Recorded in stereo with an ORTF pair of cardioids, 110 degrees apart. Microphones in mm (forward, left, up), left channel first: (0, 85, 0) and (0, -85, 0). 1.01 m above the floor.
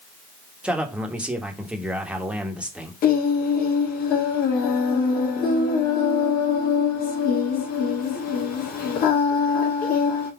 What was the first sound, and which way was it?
A man speaking, 5° right.